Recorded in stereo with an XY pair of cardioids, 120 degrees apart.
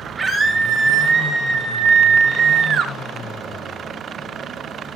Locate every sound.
0.2 s a scream: 20° right, 3 m; by 2.9 s 55° right, 2.5 m